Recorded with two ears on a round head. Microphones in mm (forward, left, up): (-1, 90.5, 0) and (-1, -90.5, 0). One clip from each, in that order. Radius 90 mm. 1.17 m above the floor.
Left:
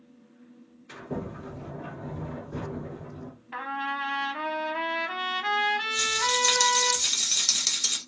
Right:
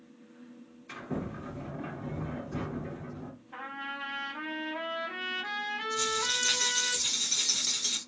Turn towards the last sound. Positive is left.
turn(degrees=25)  # may be behind; listen again after turning